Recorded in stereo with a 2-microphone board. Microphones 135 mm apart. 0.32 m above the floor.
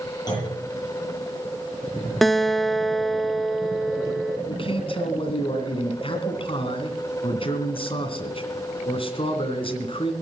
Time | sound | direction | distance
0.3 | a clunk | 30° left (ahead or behind) | 8 m
2.2 | a guitar | centre (ahead or behind) | 0.6 m
4.5 | a man speaking | 40° left (ahead or behind) | 2.5 m